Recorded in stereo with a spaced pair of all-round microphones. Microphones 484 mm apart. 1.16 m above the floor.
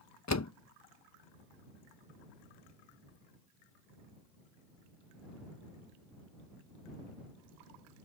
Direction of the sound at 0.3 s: 35° left (ahead or behind).